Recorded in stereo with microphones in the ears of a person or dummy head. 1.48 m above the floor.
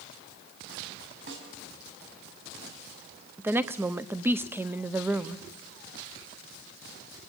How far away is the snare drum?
About 5.5 m.